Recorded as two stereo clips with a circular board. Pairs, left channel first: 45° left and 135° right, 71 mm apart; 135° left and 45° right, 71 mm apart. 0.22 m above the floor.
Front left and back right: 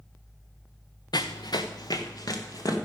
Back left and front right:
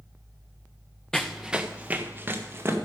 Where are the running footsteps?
55° left, 0.8 m; by 2.8 s 10° left, 2 m.